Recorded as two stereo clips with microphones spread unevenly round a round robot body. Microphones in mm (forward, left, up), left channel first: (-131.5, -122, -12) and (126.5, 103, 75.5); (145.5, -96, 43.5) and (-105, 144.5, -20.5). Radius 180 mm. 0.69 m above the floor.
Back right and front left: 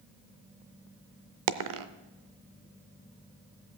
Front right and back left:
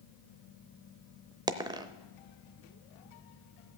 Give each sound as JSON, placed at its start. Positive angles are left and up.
{"t": 1.5, "sound": "a dropped coin", "azimuth_deg": 55, "distance_m": 0.6}